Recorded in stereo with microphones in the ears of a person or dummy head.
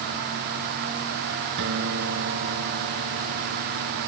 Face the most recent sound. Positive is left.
turn(degrees=-70)  # may be behind; listen again after turning